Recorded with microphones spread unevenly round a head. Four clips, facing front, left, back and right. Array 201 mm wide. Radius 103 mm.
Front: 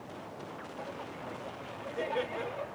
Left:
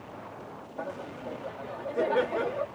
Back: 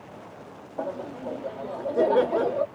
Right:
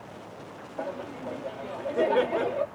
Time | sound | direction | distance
0.8 | laughter | 165° right | ?